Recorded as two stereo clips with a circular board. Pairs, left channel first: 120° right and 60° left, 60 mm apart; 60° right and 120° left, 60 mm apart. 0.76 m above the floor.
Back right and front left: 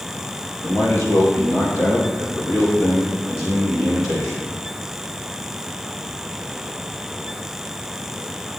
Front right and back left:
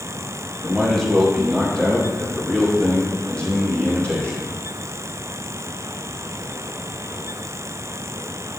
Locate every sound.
0.6 s a man speaking: 150° right, 2.5 m; by 4.5 s 130° right, 5.5 m